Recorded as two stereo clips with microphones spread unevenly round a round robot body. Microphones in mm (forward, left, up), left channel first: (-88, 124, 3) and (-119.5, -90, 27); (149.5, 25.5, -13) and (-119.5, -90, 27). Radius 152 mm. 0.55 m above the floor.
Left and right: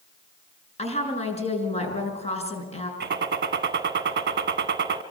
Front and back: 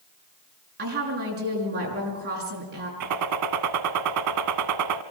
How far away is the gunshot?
About 1.1 m.